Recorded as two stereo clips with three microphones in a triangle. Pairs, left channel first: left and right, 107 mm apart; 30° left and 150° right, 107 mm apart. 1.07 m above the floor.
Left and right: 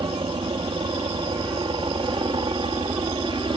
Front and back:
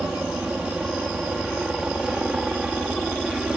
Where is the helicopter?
70° right.